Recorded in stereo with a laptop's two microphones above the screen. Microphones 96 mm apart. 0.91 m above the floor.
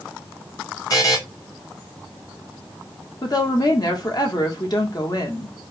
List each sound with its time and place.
0.9 s a buzzer: 35° left (ahead or behind), 1.1 m
3.2 s a woman speaking: 45° left (ahead or behind), 0.9 m